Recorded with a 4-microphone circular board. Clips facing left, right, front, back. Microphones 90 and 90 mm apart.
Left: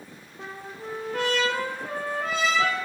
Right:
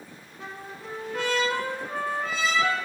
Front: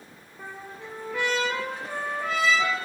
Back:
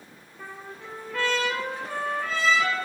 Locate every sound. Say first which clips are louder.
0.4 s a trumpet: left 2 dB, front 1 dB; 70° left, 2 m